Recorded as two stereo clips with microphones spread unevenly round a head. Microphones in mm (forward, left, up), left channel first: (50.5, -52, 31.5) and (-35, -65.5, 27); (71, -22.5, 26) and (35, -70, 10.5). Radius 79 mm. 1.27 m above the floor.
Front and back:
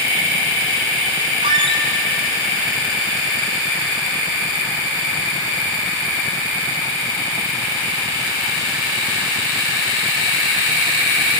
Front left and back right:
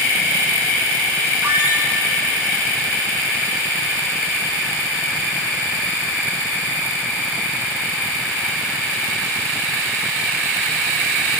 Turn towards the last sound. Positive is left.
turn(degrees=150)